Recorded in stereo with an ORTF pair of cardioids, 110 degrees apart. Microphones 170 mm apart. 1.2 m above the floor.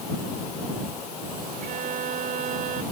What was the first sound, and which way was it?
A violin, 55° right.